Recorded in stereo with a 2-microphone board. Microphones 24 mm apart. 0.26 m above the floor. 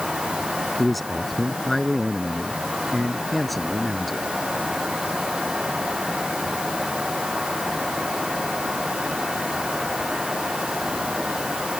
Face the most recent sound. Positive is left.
turn(degrees=0)  # may be behind; listen again after turning